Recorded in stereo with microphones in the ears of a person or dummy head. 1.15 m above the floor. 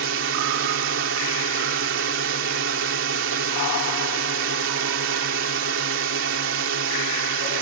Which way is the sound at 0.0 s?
60° right (ahead or behind).